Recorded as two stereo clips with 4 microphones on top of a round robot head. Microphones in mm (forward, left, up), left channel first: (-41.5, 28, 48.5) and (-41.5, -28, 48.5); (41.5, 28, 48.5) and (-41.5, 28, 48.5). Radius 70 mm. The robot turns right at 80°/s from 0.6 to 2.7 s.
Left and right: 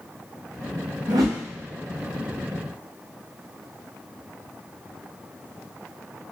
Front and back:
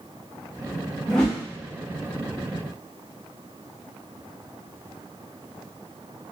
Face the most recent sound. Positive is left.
turn(degrees=40)